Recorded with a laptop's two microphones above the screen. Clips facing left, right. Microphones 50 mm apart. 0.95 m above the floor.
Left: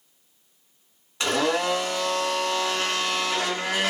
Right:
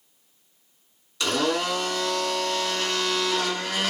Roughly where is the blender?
Left.